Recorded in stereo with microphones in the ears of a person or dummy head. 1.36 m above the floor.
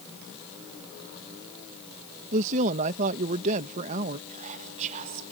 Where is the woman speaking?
40° right (ahead or behind).